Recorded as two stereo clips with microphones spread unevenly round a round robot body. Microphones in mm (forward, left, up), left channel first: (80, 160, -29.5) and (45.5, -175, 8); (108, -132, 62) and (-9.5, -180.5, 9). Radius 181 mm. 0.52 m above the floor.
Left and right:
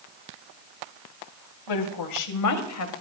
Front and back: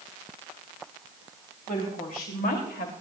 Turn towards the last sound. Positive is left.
turn(degrees=40)